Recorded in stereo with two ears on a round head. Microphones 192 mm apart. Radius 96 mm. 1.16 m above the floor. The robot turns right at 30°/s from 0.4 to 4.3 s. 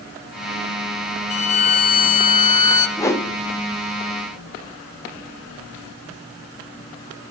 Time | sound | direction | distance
1.3 | a violin | 105° left | 0.6 m
3.0 | a whoosh | 15° left (ahead or behind) | 0.7 m